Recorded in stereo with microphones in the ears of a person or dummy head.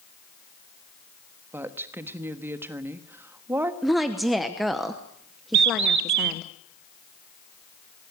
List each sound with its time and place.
1.5 s a woman speaking: 10° right (ahead or behind), 1.3 m
3.8 s a woman speaking: 5° left (ahead or behind), 0.9 m
5.5 s a bird: 65° right (ahead or behind), 0.8 m